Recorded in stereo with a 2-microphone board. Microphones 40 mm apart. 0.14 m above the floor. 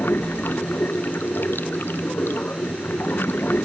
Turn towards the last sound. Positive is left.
turn(degrees=60)  # may be behind; listen again after turning